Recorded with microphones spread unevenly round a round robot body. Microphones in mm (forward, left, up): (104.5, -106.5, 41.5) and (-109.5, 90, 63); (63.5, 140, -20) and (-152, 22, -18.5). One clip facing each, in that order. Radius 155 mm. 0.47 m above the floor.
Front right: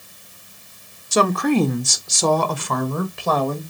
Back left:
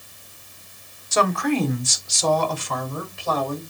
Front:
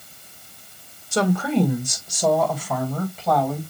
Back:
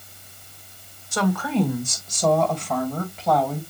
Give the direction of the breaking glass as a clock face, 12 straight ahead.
I don't hear breaking glass.